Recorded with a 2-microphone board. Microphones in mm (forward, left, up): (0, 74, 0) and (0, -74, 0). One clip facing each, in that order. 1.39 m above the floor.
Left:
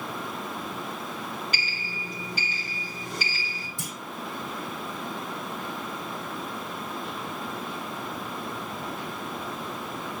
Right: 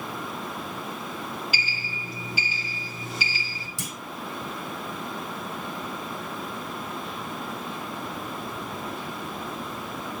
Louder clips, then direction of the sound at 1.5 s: Right 1 dB; 5° right (ahead or behind).